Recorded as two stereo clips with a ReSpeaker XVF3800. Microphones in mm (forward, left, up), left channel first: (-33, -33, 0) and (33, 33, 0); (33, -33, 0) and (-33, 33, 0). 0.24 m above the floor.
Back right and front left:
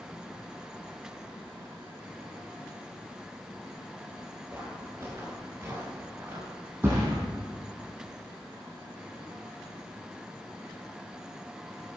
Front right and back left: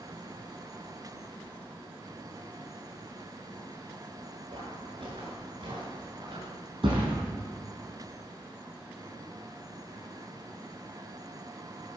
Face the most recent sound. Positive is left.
turn(degrees=110)